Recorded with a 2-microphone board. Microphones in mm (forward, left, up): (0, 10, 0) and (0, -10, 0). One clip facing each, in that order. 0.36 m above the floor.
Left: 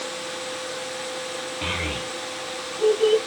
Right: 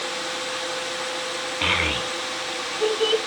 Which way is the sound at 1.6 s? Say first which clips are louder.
Right 7 dB; 35° right (ahead or behind).